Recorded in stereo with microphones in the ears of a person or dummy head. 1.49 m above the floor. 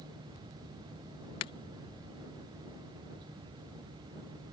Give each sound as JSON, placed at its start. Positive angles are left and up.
{"t": 1.4, "sound": "breaking glass", "side_deg": 20}